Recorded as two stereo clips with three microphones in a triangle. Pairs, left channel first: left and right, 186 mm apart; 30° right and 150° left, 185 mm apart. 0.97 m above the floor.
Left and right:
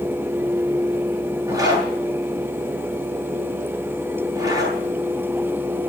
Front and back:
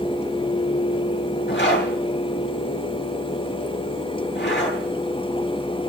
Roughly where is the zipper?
Ahead.